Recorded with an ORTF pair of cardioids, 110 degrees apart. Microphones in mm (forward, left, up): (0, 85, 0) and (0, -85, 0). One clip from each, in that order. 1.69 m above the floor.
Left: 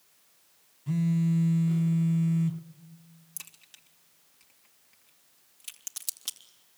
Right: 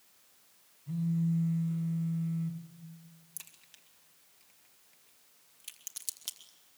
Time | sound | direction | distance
0.9 | a phone buzzing | 65° left | 1.3 m
3.4 | a crack | 20° left | 2.5 m